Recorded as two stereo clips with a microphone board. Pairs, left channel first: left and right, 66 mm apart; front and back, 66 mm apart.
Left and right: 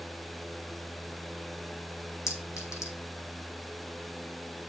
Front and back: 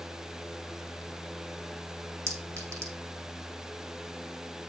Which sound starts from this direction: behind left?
A clink, at 2.3 s.